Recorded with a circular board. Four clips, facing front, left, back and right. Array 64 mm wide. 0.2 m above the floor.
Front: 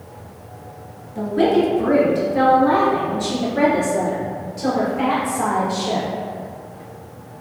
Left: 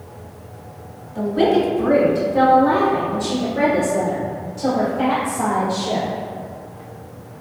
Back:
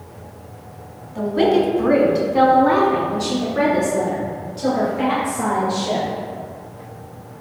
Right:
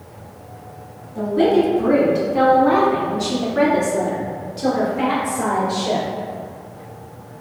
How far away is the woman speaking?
About 1.5 m.